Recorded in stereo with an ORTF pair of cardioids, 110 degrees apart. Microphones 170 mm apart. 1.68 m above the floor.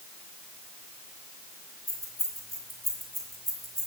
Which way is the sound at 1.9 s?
15° right.